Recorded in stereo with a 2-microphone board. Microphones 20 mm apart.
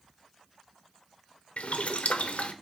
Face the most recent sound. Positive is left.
turn(degrees=85)